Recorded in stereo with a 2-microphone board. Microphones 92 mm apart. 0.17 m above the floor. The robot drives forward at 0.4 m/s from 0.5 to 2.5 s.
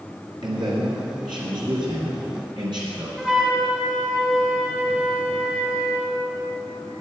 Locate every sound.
0.4 s a man speaking: 60° right (ahead or behind), 3 m; by 3.1 s 55° right (ahead or behind), 3 m
3.2 s a flute: 10° right (ahead or behind), 1.5 m